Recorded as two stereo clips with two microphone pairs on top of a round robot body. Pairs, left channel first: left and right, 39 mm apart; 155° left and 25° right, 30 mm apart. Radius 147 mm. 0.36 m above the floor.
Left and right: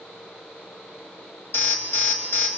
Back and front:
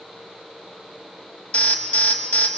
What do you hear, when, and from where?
1.5 s an alarm: 115° left, 2 m